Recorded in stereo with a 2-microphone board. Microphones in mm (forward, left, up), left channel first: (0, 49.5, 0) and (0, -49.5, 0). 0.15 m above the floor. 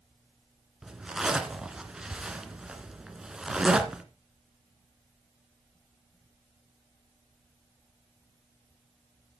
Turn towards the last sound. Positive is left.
turn(degrees=-10)  # may be behind; listen again after turning